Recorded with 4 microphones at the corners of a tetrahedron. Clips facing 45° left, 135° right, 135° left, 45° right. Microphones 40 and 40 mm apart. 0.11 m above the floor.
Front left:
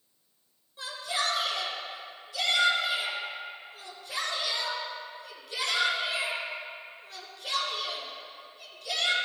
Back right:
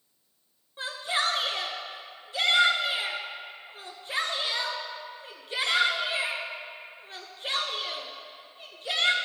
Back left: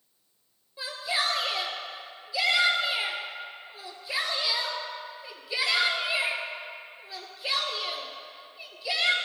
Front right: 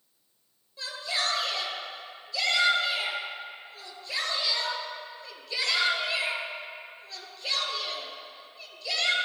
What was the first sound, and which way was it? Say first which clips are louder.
A shout: back right 3 dB, back left 2 dB; 155° right.